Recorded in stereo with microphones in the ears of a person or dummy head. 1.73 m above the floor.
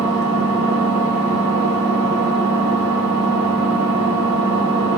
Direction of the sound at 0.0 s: 80° right.